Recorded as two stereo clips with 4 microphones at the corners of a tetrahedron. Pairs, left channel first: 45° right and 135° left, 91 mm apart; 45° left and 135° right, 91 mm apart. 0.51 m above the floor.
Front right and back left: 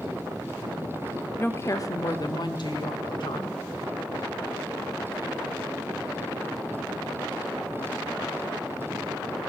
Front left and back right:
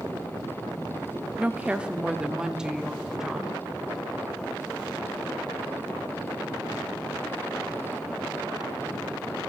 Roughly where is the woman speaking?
Right.